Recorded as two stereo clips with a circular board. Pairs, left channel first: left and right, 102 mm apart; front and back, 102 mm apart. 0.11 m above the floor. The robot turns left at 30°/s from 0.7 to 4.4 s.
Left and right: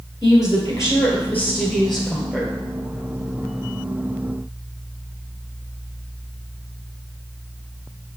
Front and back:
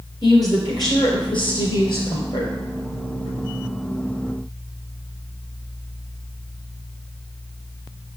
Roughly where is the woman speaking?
Ahead left.